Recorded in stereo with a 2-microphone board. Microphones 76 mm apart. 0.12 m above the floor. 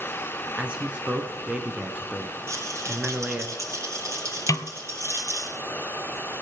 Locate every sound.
0.6 s a man speaking: 15° right (ahead or behind), 1.1 m
2.5 s a rattle: 40° right (ahead or behind), 3 m
4.5 s a snare drum: 45° left (ahead or behind), 0.5 m